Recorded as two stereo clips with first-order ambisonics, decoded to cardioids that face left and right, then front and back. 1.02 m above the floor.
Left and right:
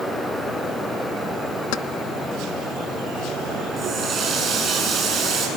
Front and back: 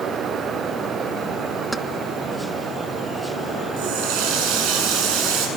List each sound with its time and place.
1.7 s keys jangling: 95° left, 0.7 m
3.8 s a running tap: 165° right, 7.5 m